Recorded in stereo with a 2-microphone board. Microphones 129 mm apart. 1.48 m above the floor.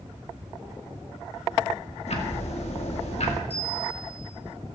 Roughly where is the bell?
Left.